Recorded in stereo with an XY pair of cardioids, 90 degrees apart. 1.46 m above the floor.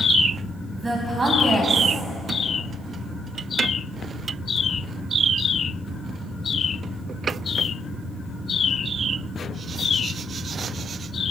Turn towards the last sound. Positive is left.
turn(degrees=-25)